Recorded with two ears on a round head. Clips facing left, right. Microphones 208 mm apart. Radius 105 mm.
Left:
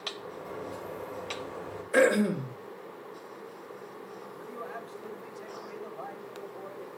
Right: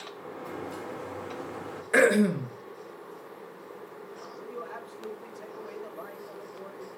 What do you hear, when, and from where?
0.1 s a sliding door: 75° right (ahead or behind), 1.9 m
1.9 s throat clearing: 75° right (ahead or behind), 3.5 m
4.3 s a man speaking: 35° right (ahead or behind), 4.5 m